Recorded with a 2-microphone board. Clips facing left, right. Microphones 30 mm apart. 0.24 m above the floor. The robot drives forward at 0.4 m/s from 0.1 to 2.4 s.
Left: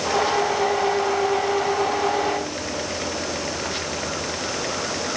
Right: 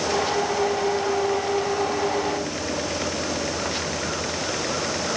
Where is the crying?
I don't hear crying.